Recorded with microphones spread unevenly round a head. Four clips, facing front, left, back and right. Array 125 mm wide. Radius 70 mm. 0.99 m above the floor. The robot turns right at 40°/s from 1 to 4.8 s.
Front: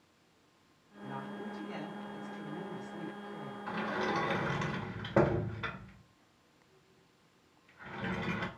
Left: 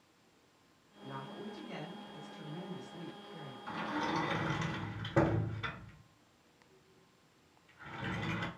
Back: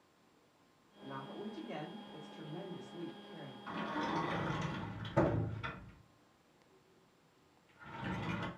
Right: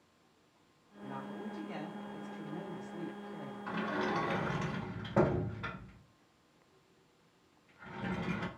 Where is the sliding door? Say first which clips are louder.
Right 1 dB, front 4 dB; 40° right, 1.4 m; by 8.5 s 5° left, 1.4 m.